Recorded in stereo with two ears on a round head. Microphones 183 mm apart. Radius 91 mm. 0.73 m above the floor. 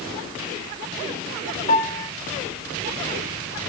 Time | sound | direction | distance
1.7 | a piano | 20° left (ahead or behind) | 1.3 m